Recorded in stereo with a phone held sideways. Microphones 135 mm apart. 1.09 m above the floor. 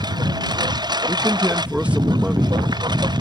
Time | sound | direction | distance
0.0 | a lawn mower | 30° right (ahead or behind) | ?
1.1 | a man speaking | 10° right (ahead or behind) | ?